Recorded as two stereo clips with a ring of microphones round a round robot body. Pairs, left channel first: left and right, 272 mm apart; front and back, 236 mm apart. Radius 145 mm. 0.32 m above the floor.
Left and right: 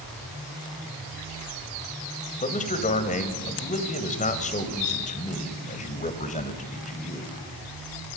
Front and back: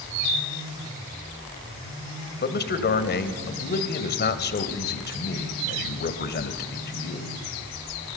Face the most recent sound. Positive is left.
turn(degrees=35)